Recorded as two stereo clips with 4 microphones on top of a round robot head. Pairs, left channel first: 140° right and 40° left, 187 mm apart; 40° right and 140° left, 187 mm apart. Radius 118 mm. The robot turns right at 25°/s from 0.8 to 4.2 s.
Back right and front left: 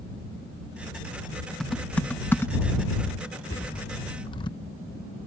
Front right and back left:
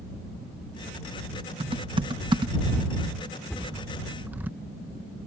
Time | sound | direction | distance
1.6 | typing on a keyboard | 140° left | ?
3.5 | a cupboard door | 130° right | ?